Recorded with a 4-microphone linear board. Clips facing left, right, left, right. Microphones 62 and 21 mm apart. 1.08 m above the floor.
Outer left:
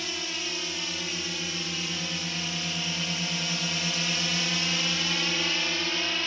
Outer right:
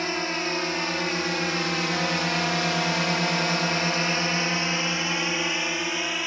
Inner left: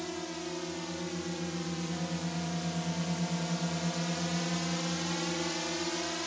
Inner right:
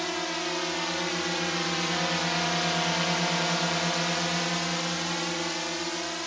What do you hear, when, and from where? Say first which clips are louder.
0.0 s a drone: outer right 8 dB, inner right 8 dB; 45° right (ahead or behind); by 6.3 s 15° right (ahead or behind)